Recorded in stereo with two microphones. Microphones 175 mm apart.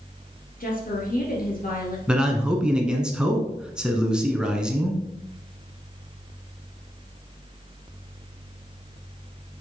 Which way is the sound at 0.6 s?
55° left (ahead or behind).